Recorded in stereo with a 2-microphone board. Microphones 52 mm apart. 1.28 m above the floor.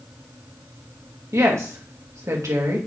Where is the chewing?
I don't hear chewing.